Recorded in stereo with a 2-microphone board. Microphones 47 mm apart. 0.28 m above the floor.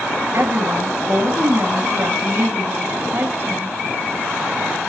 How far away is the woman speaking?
About 2.5 m.